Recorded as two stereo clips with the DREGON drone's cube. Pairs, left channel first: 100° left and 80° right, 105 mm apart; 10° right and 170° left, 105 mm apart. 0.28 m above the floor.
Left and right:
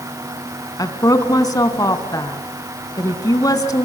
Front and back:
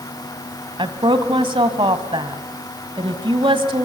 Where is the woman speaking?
145° left, 2 m.